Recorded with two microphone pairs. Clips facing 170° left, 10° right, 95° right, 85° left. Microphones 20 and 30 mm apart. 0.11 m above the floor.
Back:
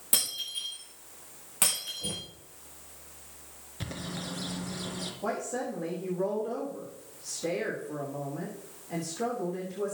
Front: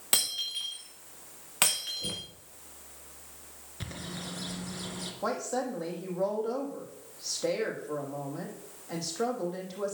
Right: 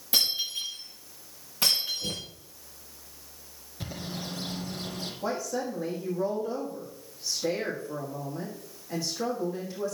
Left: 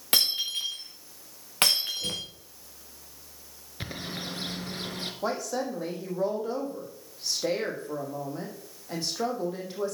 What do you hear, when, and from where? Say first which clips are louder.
0.1 s breaking glass: front 2 dB, left 1 dB; 50° left, 4.5 m
2.0 s knocking: even, left 2 dB; straight ahead, 4 m
3.8 s a bird: back 2 dB, left 1 dB; 85° left, 1.8 m
5.2 s a woman speaking: front 2 dB, left 1 dB; 35° left, 5 m